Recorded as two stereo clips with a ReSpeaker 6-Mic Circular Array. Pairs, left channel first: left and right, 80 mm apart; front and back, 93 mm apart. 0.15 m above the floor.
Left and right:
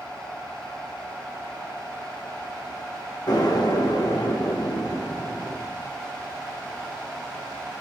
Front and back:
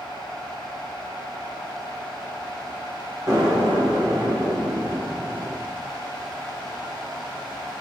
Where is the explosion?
125° left, 9 m.